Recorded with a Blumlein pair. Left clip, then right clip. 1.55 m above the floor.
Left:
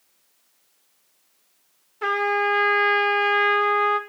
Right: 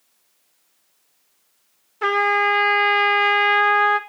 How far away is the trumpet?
About 1.4 m.